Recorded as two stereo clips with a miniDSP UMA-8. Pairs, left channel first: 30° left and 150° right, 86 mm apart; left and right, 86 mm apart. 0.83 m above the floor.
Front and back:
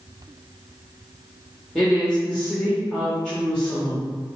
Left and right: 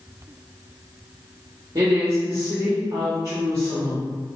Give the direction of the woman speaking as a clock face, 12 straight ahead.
2 o'clock.